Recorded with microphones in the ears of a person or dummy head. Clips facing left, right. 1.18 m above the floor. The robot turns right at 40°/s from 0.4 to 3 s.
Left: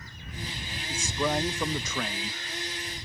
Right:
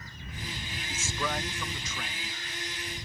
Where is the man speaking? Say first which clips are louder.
Left 6 dB; 5° left; by 2.4 s 65° left.